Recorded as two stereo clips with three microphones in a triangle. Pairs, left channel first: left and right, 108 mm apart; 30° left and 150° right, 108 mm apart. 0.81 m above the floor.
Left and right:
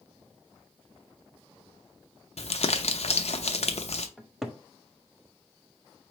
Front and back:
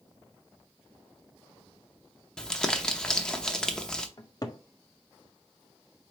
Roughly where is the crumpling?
Left.